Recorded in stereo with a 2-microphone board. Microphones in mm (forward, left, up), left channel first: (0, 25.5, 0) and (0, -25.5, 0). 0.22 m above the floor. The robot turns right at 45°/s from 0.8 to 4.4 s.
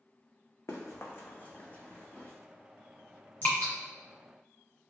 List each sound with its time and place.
0.7 s running footsteps: 60° left (ahead or behind), 0.7 m; by 2.3 s 25° left (ahead or behind), 0.8 m
3.4 s dripping: 40° left (ahead or behind), 1.5 m; by 3.7 s 45° left (ahead or behind), 1.5 m